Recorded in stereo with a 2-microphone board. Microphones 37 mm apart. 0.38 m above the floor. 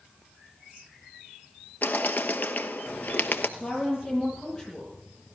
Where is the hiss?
I don't hear a hiss.